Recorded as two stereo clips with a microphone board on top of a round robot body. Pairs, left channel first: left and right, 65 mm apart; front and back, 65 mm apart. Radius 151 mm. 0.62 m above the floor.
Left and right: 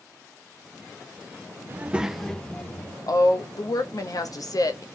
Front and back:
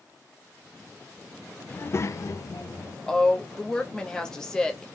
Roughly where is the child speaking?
Ahead right.